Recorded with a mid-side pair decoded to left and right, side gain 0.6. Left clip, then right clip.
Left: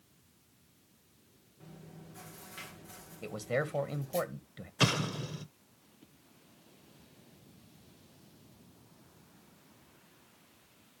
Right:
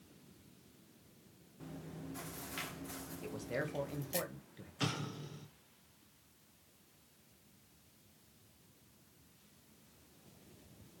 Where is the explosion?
55° left, 1.1 m.